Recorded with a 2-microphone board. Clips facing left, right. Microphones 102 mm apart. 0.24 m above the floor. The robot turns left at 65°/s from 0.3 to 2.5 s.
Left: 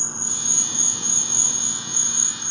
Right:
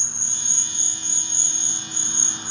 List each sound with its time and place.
0.0 s an insect: 135° left, 1.2 m; by 2.5 s 5° right, 1.2 m